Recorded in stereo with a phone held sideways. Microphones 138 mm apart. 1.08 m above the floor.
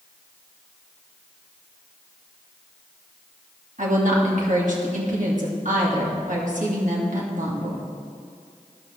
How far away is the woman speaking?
About 2 m.